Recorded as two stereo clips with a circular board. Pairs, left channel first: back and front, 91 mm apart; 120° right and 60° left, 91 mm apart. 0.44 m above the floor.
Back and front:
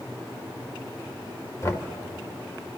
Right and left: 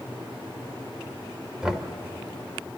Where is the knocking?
140° left, 1.4 m.